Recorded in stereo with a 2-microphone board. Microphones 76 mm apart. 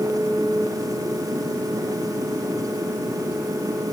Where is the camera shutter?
No camera shutter in this recording.